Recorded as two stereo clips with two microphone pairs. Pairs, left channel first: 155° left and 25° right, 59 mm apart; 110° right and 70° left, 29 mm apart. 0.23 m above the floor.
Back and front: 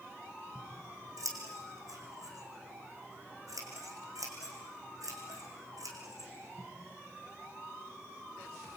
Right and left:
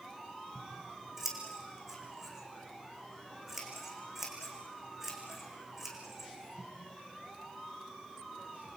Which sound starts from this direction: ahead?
Scissors, at 0.6 s.